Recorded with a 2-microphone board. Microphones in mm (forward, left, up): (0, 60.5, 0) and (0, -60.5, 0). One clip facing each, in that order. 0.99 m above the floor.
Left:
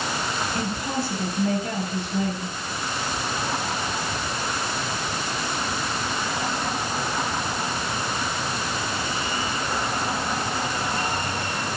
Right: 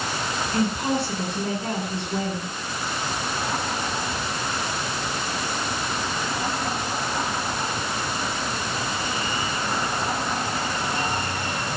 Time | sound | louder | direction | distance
0.5 | a woman speaking | right 4 dB | 90° right | 8.5 m